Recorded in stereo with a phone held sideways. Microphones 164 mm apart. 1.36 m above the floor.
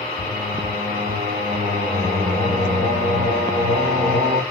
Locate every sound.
0.2 s singing: 40° right (ahead or behind), 1.5 m